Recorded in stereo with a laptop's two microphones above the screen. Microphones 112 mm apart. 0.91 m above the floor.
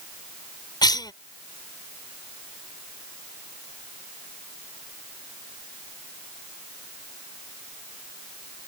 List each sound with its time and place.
0.8 s a cough: 40° left (ahead or behind)